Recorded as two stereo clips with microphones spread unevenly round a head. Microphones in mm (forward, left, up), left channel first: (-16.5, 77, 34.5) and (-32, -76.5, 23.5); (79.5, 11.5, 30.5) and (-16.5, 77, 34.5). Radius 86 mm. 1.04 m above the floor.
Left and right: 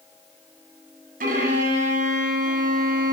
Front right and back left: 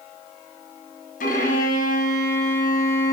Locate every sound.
1.2 s a violin: 50° right, 6.5 m